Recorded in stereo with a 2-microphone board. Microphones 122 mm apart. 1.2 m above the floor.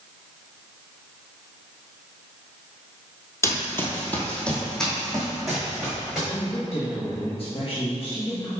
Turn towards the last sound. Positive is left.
turn(degrees=50)  # may be behind; listen again after turning